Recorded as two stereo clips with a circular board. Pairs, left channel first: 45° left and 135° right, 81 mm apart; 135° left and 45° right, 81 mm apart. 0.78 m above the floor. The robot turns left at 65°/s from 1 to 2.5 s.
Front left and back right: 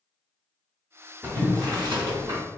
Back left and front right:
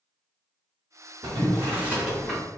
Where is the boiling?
70° right, 1.0 m; by 2.4 s 150° right, 1.0 m.